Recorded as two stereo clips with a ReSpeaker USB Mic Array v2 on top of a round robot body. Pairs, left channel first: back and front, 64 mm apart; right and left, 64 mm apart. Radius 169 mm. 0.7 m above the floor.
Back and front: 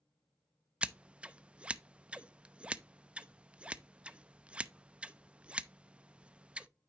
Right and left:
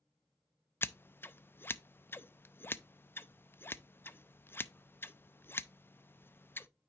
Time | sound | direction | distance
0.8 | scissors | 60° right | 0.6 m